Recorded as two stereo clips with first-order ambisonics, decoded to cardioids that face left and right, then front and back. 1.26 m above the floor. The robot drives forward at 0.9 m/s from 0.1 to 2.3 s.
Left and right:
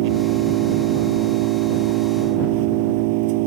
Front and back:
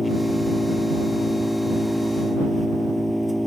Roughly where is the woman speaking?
I don't hear a woman speaking.